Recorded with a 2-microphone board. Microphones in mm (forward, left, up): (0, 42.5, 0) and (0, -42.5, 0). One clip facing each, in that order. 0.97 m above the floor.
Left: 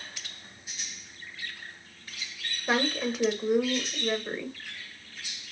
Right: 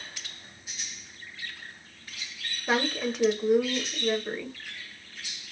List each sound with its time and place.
2.7 s a woman speaking: centre (ahead or behind), 0.7 m